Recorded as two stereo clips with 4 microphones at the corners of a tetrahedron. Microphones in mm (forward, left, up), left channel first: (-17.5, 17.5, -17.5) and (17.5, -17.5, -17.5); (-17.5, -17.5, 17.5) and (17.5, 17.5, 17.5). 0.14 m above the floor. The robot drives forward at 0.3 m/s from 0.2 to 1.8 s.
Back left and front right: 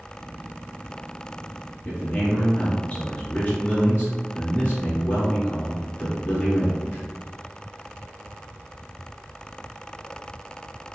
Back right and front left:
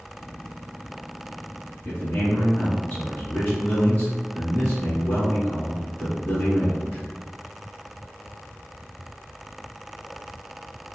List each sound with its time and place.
1.9 s a man speaking: straight behind, 1.4 m